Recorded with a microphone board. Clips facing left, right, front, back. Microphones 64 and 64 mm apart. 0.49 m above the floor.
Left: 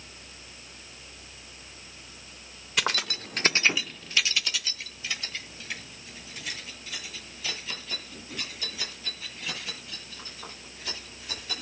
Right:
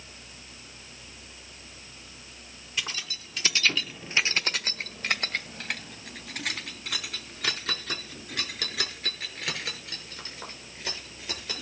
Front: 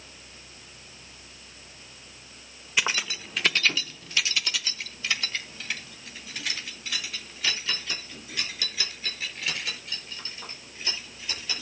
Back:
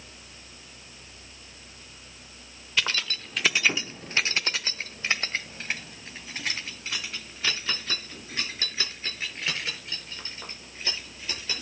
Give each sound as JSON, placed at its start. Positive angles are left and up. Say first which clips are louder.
{"t": 2.8, "sound": "keys jangling", "louder": "left 7 dB, front 1 dB", "azimuth_deg": 75, "distance_m": 1.0}